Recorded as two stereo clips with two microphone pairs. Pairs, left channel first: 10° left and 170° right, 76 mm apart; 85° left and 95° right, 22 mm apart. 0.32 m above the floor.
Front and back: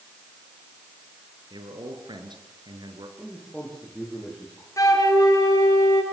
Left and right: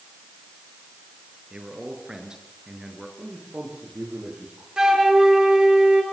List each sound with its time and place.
1.5 s a man speaking: 150° right, 6.5 m; by 3.1 s 165° right, 5.5 m
3.2 s a man speaking: 70° right, 9 m
4.8 s a flute: 35° right, 6.5 m